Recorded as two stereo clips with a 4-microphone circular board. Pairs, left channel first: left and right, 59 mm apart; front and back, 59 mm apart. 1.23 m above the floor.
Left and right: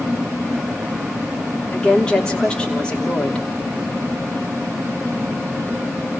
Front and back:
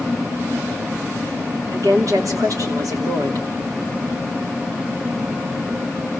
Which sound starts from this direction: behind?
A woman speaking, at 1.7 s.